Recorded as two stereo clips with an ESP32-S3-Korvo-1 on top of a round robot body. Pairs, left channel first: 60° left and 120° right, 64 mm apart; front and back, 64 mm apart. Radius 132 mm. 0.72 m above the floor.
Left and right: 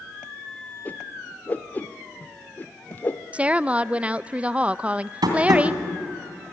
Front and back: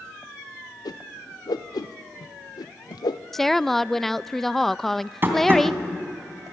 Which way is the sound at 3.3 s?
80° right.